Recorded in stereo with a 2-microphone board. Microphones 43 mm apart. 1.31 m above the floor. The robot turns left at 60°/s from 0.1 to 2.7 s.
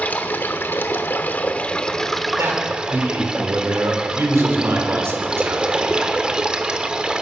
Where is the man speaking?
70° right (ahead or behind), 4 m; by 6.0 s 90° right, 4 m.